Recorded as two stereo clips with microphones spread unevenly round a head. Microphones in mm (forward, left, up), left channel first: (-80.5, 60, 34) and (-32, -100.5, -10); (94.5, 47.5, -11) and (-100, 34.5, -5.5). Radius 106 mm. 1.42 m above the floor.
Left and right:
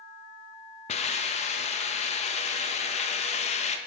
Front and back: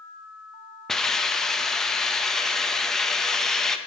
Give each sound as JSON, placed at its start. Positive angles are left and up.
{"t": 0.9, "sound": "a hiss", "azimuth_deg": 90, "distance_m": 0.8}